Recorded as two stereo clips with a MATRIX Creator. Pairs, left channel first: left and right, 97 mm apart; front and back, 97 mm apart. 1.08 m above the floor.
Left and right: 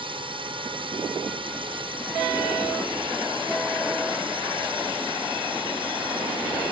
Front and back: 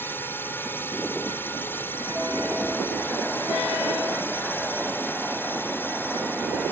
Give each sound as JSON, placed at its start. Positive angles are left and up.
{"t": 0.0, "sound": "a drone", "azimuth_deg": -65}